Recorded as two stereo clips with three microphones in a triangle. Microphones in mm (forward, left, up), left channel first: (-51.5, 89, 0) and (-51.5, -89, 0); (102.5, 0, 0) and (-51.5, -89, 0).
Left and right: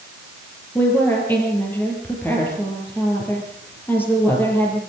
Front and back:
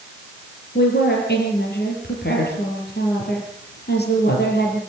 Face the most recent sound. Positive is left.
turn(degrees=10)